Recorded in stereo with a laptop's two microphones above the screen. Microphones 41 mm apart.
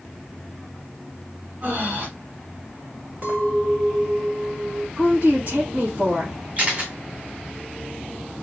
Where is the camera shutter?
35° right (ahead or behind), 2 m.